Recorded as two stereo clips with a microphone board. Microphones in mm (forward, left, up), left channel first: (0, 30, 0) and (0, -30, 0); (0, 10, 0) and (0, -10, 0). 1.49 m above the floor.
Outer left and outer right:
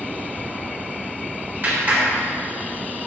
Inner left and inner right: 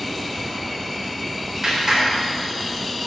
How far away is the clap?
About 4 m.